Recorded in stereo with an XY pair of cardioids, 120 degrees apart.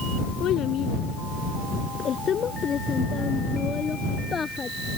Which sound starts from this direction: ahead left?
A child speaking, at 0.4 s.